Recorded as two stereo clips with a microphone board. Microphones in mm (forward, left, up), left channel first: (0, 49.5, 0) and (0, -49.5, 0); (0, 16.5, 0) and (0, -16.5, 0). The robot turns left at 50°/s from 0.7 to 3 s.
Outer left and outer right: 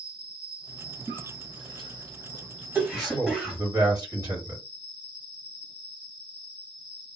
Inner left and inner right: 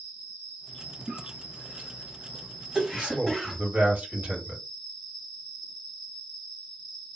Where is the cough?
50° right (ahead or behind), 1.8 m; by 3.6 s 5° right (ahead or behind), 1.8 m.